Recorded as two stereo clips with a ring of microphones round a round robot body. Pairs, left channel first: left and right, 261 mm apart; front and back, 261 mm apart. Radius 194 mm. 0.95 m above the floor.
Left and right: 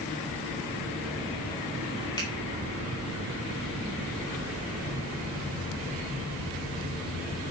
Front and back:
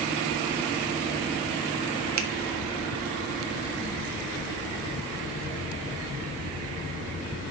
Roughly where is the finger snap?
Behind.